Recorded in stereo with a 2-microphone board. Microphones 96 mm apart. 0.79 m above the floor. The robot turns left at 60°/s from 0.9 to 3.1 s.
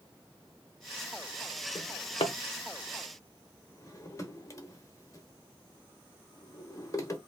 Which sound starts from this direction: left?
A drawer, at 1.8 s.